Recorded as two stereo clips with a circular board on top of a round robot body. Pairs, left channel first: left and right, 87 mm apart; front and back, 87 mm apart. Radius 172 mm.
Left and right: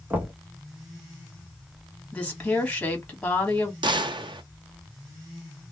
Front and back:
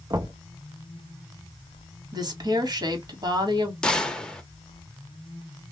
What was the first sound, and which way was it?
Knocking, 155° right.